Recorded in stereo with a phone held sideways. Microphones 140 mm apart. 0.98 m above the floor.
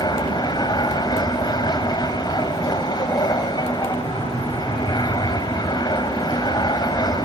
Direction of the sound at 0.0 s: 30° left (ahead or behind).